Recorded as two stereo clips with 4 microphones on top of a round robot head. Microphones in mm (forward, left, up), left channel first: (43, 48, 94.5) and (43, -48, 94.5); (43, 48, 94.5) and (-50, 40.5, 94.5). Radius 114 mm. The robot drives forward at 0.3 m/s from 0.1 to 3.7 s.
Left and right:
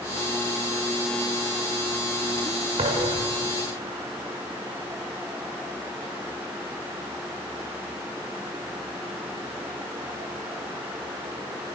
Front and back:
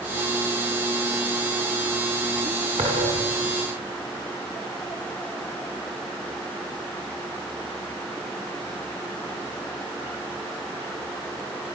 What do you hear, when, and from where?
2.8 s a thud: 140° right, 8.5 m